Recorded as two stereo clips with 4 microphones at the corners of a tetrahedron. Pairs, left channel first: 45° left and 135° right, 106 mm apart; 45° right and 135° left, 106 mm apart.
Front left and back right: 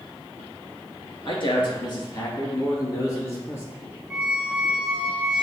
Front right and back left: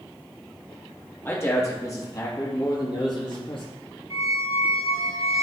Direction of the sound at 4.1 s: 50° right.